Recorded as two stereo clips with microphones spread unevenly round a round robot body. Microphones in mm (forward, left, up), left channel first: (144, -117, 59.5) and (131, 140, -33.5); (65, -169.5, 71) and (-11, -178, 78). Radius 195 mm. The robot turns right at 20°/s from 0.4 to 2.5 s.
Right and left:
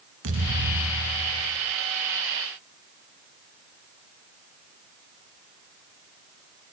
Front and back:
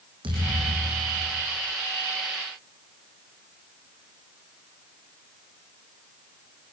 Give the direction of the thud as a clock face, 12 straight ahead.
7 o'clock.